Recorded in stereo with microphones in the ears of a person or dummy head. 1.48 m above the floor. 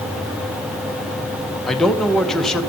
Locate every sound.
1.7 s a man speaking: centre (ahead or behind), 0.6 m